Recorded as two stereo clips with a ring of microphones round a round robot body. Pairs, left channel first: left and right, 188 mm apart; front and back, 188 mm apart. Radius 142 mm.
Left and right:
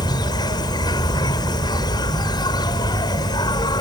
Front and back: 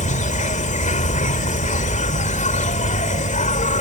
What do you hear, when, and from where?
0.0 s an insect: 30° left